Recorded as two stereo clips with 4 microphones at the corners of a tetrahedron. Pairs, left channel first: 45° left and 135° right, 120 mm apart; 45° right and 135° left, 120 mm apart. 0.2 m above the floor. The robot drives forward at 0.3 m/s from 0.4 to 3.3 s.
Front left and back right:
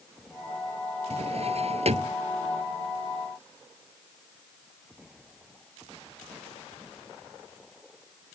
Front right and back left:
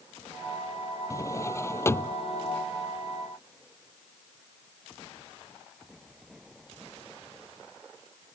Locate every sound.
1.1 s a drawer: 105° right; by 2.2 s 115° right